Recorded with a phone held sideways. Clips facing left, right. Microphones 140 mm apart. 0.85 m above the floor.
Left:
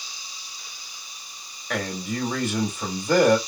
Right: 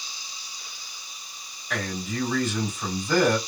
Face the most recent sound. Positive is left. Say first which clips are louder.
# left 2 dB
turn(degrees=55)  # may be behind; listen again after turning